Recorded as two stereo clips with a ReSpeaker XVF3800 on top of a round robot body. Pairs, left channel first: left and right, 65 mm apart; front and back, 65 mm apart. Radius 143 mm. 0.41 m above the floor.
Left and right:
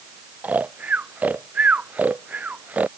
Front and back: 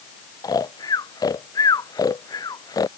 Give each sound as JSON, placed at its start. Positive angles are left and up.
{"t": 0.4, "sound": "snoring", "azimuth_deg": -25}